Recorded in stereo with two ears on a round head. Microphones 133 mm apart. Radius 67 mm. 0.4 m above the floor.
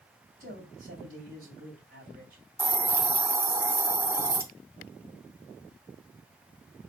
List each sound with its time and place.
0.4 s a man speaking: 65° right (ahead or behind), 3 m
2.6 s a hiss: 20° right (ahead or behind), 0.6 m